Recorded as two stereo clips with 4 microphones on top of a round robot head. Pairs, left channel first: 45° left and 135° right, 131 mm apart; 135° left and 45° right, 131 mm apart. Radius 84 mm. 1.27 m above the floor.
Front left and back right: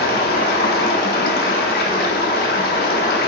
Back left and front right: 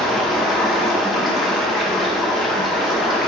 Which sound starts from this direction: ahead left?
Running water, at 0.0 s.